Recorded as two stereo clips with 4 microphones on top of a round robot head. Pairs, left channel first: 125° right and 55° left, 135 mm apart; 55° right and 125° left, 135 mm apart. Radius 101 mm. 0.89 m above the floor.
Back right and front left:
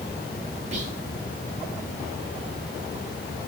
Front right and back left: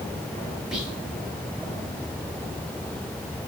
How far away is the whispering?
About 1.6 m.